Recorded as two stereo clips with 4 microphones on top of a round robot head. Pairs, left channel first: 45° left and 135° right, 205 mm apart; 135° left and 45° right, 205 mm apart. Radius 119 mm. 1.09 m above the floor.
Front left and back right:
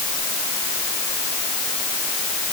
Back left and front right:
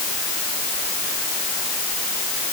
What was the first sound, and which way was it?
Only background noise.